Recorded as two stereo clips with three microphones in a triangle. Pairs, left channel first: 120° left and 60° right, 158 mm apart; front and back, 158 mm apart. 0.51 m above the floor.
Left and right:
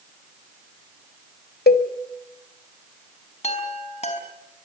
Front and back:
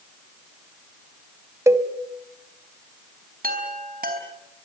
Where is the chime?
165° left, 3.5 m.